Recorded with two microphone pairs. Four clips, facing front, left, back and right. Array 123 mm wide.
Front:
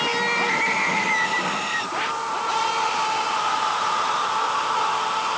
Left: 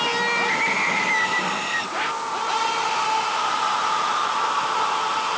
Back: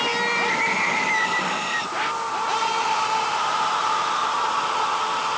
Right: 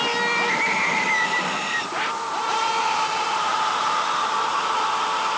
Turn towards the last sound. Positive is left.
No sound to turn to.